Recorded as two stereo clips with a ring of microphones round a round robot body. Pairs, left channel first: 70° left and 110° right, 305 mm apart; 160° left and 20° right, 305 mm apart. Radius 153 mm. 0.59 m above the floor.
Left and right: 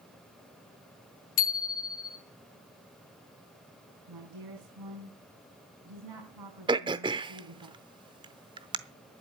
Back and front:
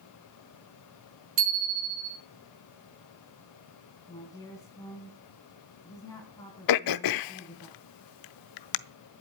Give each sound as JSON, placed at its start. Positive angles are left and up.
{"t": 1.4, "sound": "a bicycle bell", "azimuth_deg": 25, "distance_m": 4.0}
{"t": 4.1, "sound": "a woman speaking", "azimuth_deg": -125, "distance_m": 4.5}
{"t": 6.7, "sound": "throat clearing", "azimuth_deg": 175, "distance_m": 0.7}